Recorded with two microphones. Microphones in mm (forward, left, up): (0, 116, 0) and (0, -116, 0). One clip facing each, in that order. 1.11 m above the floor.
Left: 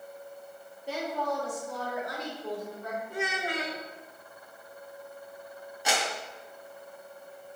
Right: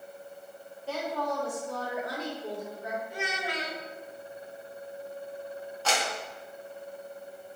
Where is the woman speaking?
15° left (ahead or behind), 2 m; by 3.0 s 15° right (ahead or behind), 3.5 m.